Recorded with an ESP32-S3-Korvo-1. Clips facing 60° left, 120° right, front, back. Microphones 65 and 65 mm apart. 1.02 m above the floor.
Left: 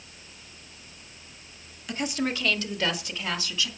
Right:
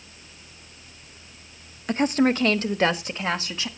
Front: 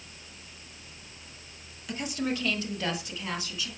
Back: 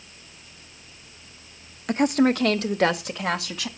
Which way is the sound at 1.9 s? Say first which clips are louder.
Right 8 dB, back 12 dB; 160° right.